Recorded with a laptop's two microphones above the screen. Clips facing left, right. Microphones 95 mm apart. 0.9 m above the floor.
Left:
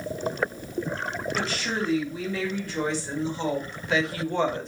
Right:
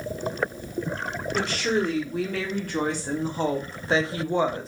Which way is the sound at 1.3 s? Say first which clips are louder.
Right 7 dB; 65° right (ahead or behind).